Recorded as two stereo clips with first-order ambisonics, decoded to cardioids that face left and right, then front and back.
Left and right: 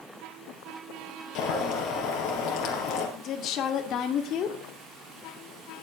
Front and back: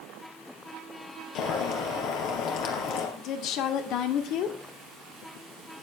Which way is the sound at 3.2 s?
40° left.